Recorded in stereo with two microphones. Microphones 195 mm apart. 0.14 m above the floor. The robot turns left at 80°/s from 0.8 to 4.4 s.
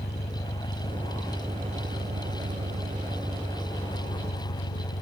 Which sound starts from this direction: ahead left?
An engine running, at 0.0 s.